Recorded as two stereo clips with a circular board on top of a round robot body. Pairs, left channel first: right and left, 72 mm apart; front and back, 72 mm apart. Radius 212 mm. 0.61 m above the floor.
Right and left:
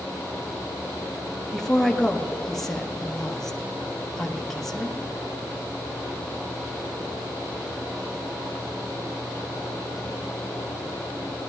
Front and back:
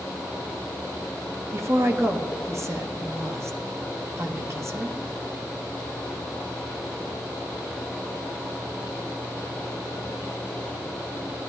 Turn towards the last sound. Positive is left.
turn(degrees=-175)